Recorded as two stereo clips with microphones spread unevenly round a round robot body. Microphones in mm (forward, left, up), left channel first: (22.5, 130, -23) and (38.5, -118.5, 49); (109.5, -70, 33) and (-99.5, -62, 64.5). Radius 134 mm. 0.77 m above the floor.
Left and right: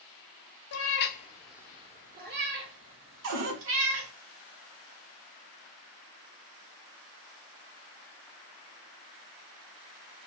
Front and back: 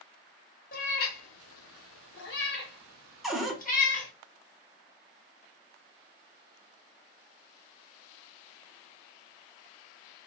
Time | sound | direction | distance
0.7 | a cat meowing | 60° left | 0.7 m
3.2 | a cupboard door | 95° right | 0.8 m